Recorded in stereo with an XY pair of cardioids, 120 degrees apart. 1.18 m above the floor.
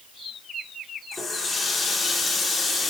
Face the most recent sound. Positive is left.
turn(degrees=25)